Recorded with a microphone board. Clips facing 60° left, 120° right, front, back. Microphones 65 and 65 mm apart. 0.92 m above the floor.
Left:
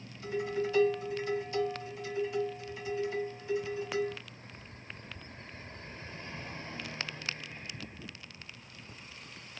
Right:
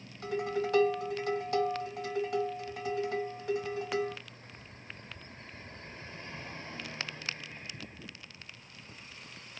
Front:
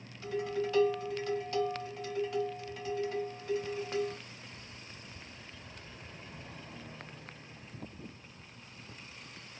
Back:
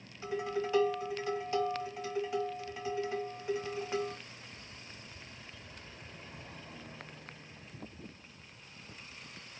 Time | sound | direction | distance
0.2 | dishes clattering | 105° right | 1.0 m